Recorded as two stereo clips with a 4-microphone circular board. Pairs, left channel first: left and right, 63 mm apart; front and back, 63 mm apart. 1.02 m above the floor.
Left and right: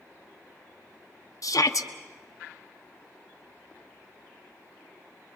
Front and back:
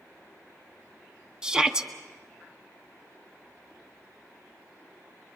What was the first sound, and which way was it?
A shout, 105° left.